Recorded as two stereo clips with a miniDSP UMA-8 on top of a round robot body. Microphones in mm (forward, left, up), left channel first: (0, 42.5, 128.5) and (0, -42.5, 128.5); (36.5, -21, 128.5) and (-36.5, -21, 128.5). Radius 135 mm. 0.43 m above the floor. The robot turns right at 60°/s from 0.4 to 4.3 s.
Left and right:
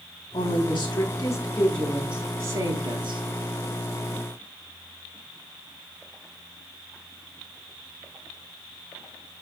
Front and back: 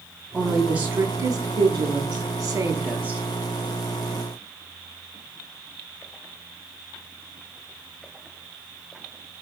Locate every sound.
0.3 s a woman speaking: 90° left, 4.5 m; by 3.2 s 100° right, 4.5 m